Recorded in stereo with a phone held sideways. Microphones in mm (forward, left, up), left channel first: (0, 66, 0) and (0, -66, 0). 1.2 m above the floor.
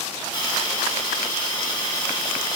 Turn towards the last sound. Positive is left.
turn(degrees=35)  # may be behind; listen again after turning